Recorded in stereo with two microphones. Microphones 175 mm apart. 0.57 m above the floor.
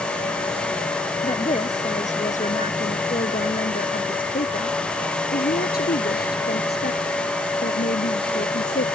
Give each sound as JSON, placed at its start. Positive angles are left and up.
{"t": 1.2, "sound": "a woman speaking", "side_deg": 35}